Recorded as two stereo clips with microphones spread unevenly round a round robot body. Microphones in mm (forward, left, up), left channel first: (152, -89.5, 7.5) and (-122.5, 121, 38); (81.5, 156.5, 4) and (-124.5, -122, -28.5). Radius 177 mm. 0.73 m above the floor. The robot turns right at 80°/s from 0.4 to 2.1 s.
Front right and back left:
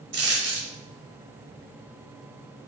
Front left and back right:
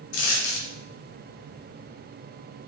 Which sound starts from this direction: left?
A dropped coin, at 0.1 s.